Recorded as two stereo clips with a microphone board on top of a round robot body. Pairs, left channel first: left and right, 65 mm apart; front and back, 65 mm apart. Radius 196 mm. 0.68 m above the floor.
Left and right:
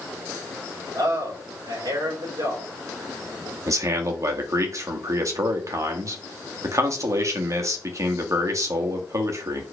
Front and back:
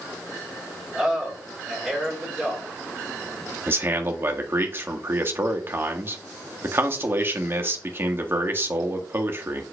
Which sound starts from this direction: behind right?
A man speaking, at 3.7 s.